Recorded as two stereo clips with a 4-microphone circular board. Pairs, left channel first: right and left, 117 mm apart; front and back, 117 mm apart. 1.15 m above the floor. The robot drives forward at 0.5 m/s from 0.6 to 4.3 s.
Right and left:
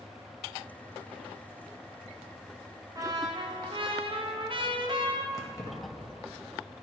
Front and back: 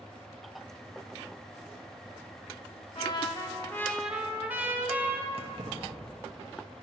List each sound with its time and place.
3.0 s a trumpet: 35° left, 0.8 m; by 5.2 s 105° left, 0.5 m
5.3 s keys jangling: 150° right, 0.8 m